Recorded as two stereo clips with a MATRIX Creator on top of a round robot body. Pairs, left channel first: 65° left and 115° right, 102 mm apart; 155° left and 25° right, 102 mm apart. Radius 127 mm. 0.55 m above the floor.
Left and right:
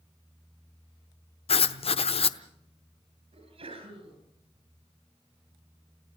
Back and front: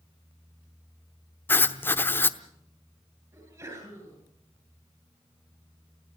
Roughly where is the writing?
Left.